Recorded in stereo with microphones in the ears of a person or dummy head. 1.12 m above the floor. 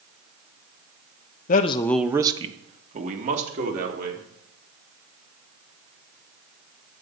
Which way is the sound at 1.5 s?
50° left (ahead or behind).